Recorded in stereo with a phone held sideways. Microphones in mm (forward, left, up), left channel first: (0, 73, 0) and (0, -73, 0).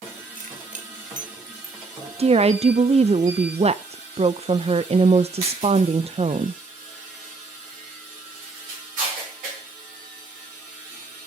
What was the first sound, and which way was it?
Keys jangling, 65° right (ahead or behind).